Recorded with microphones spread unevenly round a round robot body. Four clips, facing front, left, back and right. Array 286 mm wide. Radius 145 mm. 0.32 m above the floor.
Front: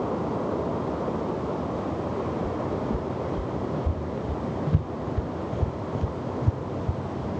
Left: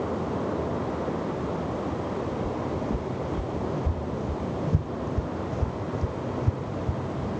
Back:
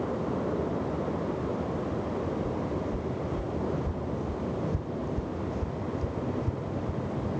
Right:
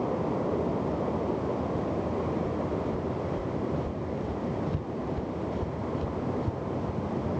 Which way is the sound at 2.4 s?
30° left.